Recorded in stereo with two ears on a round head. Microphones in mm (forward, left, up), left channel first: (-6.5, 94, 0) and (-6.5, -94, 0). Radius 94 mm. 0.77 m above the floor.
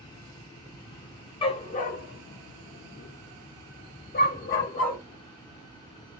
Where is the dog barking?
25° left (ahead or behind), 0.7 m; by 5.0 s 40° left (ahead or behind), 1.4 m.